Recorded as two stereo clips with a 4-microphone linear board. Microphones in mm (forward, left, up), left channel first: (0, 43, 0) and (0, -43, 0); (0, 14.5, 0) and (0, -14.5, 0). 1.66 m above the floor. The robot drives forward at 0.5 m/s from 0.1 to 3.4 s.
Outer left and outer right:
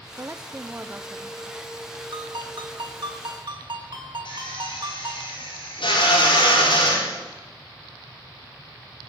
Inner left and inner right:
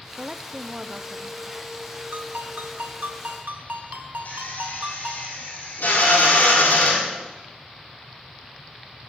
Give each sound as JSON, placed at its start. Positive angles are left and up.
{"t": 0.2, "sound": "a woman speaking", "side_deg": -35, "distance_m": 0.5}
{"t": 2.1, "sound": "a ringtone", "side_deg": -65, "distance_m": 1.8}
{"t": 4.2, "sound": "a drill", "side_deg": 80, "distance_m": 4.5}